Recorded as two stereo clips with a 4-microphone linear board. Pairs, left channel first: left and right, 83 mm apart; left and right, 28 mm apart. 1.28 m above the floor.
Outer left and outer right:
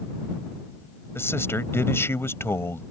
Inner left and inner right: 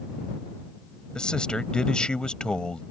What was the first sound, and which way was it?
A man speaking, 30° left (ahead or behind).